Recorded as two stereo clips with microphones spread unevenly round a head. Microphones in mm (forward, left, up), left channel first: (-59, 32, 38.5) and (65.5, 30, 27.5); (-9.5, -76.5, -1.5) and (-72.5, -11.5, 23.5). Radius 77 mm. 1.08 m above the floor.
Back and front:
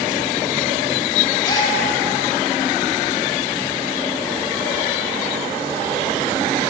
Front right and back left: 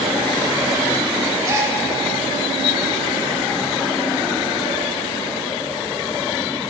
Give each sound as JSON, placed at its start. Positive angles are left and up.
{"t": 1.4, "sound": "a gasp", "azimuth_deg": 135, "distance_m": 1.1}